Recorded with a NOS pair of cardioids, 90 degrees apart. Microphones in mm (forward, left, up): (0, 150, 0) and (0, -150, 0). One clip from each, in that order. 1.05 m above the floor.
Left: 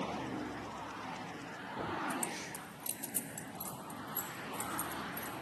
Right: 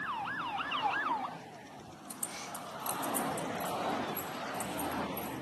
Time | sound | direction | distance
2.1 | keys jangling | 15° right | 2.5 m